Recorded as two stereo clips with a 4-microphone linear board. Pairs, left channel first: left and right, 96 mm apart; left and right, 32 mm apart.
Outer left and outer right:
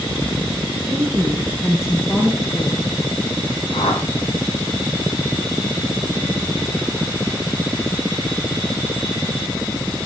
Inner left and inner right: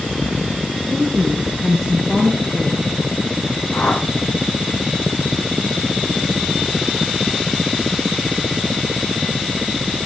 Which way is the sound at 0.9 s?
30° right (ahead or behind).